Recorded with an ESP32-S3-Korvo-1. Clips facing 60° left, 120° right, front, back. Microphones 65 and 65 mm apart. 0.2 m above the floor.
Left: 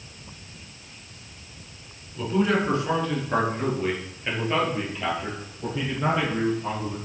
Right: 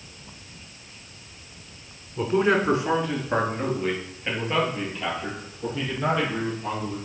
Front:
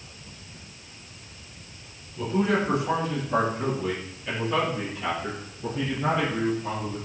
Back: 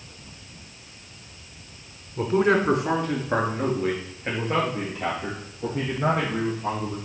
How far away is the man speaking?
About 1.8 m.